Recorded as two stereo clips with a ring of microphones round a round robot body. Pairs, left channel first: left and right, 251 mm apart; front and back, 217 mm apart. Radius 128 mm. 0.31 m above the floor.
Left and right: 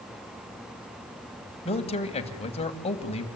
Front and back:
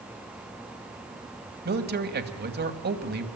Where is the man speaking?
150° left, 2.5 m.